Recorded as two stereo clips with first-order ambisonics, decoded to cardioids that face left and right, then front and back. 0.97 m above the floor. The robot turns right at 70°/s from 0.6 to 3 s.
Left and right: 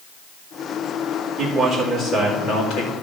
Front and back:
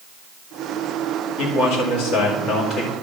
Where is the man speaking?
30° right, 2 m; by 2.9 s 80° left, 2 m.